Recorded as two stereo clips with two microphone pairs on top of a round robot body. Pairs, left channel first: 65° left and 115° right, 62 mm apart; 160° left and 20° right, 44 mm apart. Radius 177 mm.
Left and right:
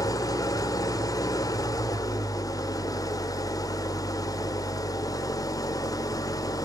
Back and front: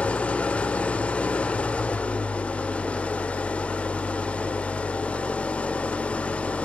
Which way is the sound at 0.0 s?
100° left.